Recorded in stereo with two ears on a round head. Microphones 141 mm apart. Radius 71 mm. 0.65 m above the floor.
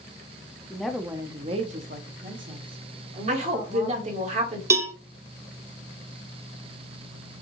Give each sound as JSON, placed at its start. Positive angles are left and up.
{"t": 0.7, "sound": "a woman speaking", "side_deg": 10, "distance_m": 0.7}
{"t": 3.3, "sound": "a woman speaking", "side_deg": -45, "distance_m": 1.7}
{"t": 4.7, "sound": "a cowbell", "side_deg": -20, "distance_m": 0.9}